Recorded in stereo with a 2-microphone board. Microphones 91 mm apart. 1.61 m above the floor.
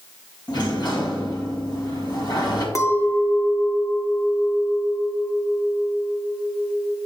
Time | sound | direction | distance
0.5 | a sliding door | 50° left (ahead or behind) | 2 m
2.8 | a clink | 35° left (ahead or behind) | 0.7 m